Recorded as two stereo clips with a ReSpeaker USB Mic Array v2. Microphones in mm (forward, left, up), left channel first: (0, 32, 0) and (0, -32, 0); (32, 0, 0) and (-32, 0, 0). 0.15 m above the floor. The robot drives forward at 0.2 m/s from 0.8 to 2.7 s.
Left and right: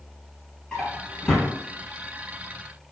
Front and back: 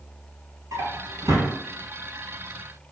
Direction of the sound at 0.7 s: 165° left.